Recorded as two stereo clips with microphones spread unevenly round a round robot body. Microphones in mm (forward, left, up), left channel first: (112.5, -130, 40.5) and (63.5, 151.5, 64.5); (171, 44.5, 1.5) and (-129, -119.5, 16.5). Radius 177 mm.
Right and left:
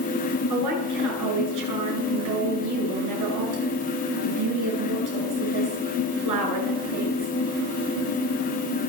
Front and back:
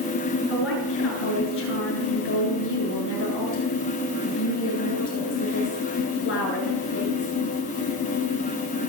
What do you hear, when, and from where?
0.5 s a woman speaking: 85° left, 9 m